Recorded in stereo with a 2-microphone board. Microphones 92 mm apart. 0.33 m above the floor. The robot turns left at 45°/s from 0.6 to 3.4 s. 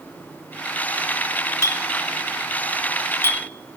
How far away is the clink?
About 0.5 m.